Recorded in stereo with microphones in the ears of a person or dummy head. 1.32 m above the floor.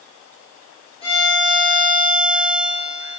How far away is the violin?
About 4 m.